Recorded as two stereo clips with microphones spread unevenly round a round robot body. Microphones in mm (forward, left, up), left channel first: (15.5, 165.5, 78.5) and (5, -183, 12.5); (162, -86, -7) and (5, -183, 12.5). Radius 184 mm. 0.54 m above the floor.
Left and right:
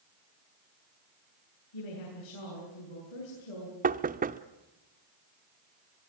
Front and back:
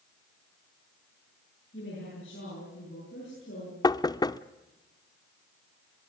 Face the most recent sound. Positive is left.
turn(degrees=-35)